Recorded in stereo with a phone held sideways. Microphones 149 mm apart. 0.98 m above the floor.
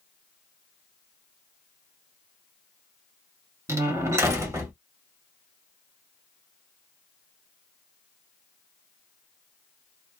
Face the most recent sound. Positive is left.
turn(degrees=-20)  # may be behind; listen again after turning